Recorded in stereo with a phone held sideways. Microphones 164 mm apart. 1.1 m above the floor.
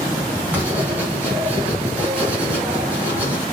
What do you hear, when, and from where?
0.5 s writing: 10° right (ahead or behind), 4.5 m